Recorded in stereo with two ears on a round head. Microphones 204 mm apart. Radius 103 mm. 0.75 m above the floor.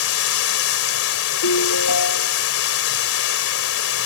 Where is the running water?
70° left (ahead or behind).